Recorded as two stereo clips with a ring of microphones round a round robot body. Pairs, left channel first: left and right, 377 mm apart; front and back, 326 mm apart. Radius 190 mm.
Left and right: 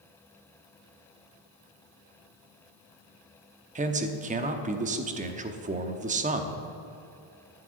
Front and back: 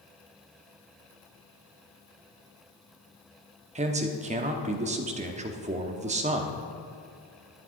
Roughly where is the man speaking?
Behind right.